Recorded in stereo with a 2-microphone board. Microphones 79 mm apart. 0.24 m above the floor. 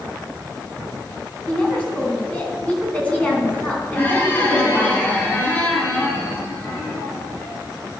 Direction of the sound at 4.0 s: 25° left (ahead or behind).